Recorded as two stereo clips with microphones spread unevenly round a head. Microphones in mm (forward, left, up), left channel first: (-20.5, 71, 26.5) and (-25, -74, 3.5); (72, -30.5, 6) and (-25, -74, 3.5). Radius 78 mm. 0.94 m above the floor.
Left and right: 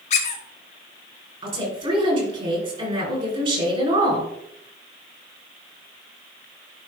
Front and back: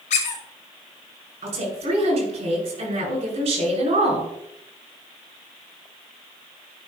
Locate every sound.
0.1 s a squeak: 45° left, 1.4 m
1.4 s a woman speaking: 140° right, 5 m